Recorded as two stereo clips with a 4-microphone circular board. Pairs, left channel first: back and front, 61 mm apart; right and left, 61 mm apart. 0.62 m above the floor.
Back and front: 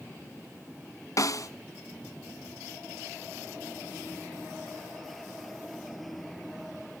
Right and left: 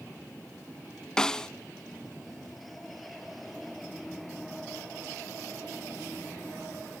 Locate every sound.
1.2 s a snare drum: 165° right, 0.8 m